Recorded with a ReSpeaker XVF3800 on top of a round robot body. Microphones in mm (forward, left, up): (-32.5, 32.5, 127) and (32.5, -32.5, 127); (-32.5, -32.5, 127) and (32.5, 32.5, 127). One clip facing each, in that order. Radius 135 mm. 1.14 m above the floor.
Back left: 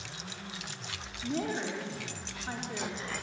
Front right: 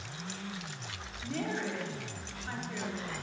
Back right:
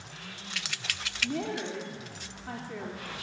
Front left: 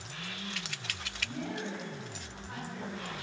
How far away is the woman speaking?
About 3 m.